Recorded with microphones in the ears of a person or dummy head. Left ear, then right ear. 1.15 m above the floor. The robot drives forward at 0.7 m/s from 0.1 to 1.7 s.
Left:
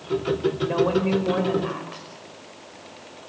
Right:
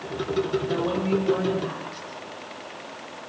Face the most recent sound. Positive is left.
turn(degrees=25)  # may be behind; listen again after turning